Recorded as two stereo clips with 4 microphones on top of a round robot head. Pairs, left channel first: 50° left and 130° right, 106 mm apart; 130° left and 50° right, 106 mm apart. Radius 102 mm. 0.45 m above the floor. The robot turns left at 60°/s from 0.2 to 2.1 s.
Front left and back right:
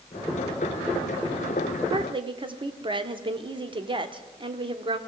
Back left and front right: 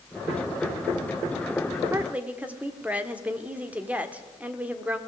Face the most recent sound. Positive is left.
turn(degrees=-125)